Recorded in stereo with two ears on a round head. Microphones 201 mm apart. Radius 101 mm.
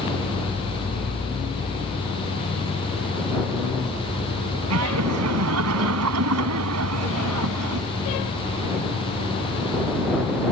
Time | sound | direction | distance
4.7 | laughter | 75° right (ahead or behind) | ?